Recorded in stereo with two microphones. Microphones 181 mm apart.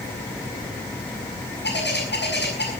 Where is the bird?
65° left (ahead or behind), 6 m.